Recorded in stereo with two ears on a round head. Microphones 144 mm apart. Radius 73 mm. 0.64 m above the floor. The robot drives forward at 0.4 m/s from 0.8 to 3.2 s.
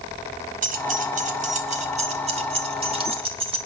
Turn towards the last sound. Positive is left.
turn(degrees=-35)  # may be behind; listen again after turning